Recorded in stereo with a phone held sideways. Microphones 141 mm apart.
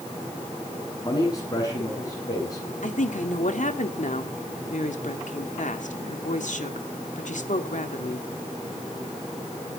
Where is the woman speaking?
70° left (ahead or behind), 2 m.